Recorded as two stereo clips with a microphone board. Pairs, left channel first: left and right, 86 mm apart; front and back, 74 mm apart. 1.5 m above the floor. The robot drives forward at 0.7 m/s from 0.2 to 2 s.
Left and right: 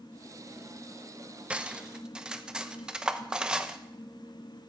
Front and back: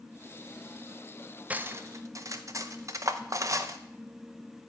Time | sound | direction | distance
1.5 | cutlery clinking | 145° right | 0.6 m